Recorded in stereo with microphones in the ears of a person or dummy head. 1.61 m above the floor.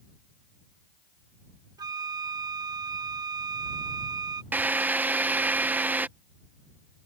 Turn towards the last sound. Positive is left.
turn(degrees=-10)  # may be behind; listen again after turning